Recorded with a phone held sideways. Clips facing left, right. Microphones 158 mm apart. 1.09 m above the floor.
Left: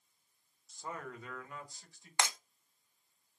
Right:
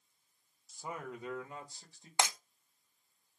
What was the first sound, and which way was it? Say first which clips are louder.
A man speaking: right 1 dB; 5° right (ahead or behind).